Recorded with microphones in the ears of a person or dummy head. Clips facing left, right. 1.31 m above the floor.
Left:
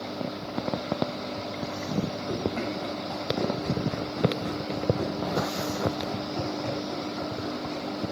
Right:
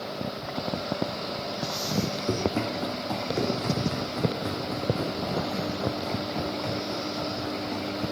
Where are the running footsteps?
50° right (ahead or behind), 2 m; by 8.1 s 45° right (ahead or behind), 9.5 m.